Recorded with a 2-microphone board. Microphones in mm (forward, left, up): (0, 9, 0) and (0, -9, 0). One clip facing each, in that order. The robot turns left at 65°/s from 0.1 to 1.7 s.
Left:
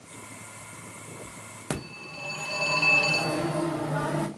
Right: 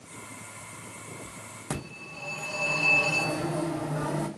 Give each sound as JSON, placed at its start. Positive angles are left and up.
{"t": 1.7, "sound": "a phone ringing", "side_deg": 35, "distance_m": 0.7}